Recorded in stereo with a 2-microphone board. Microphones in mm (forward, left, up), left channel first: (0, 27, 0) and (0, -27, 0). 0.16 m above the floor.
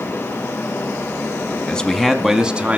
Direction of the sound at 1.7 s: 20° left (ahead or behind).